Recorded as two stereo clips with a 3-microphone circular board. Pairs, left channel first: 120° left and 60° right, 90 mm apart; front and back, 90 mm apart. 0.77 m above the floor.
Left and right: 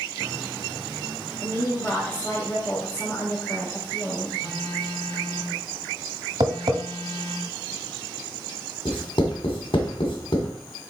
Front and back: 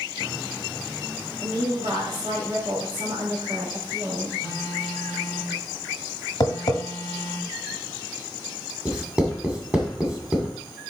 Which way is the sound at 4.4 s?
130° left.